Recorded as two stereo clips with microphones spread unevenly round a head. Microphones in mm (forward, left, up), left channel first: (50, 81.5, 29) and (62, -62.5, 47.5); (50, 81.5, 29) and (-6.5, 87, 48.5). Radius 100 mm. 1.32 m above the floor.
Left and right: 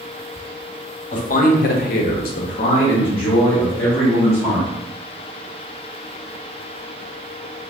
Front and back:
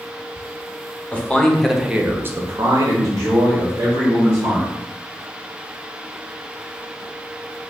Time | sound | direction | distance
1.1 | a man speaking | 60° left | 0.9 m